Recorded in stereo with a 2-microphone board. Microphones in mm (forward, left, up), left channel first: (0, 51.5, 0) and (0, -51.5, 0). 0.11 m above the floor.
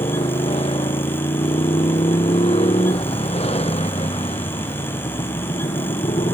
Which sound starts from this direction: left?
A motorcycle, at 0.0 s.